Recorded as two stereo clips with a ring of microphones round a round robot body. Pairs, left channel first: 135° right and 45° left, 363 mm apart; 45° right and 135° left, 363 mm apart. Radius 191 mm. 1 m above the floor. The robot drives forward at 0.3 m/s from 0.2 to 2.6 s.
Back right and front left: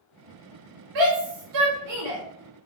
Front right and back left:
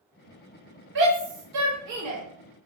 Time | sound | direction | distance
0.9 | a shout | 75° left | 1.0 m